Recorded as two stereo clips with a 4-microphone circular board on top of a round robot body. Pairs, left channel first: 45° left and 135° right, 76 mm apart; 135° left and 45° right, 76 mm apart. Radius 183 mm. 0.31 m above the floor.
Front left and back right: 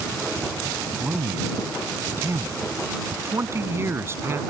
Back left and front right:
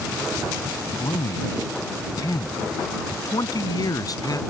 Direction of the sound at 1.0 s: 170° left.